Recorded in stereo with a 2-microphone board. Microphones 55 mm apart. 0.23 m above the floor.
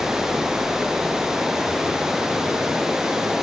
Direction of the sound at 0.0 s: 10° right (ahead or behind).